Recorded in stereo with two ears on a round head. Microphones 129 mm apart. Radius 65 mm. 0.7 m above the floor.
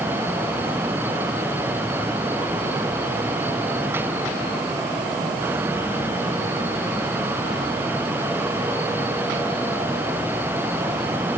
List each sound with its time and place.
Only background noise.